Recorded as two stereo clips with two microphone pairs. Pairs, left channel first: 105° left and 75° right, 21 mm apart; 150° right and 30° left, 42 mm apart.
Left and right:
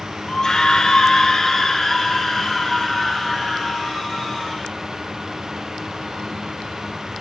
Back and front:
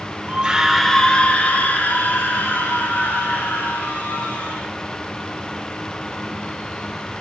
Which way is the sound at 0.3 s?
65° left.